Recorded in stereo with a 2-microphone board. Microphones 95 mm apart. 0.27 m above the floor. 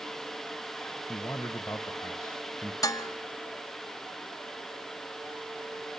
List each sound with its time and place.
1.1 s a man speaking: 20° left (ahead or behind), 1.1 m
2.8 s dishes clattering: 35° left (ahead or behind), 1.2 m